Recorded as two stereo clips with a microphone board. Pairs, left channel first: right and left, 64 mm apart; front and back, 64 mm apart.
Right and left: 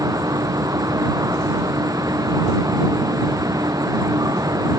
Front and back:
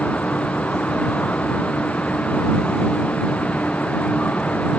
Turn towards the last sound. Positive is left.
turn(degrees=70)